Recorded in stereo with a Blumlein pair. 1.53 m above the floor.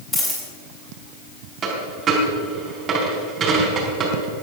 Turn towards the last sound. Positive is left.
turn(degrees=-25)